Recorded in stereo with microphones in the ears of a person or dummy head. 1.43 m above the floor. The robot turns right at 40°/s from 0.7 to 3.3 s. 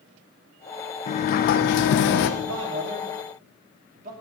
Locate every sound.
1.1 s a sliding door: 50° left, 0.9 m; by 2.3 s 100° left, 0.9 m
2.4 s a man speaking: 80° right, 2.5 m; by 4.1 s 45° right (ahead or behind), 2.5 m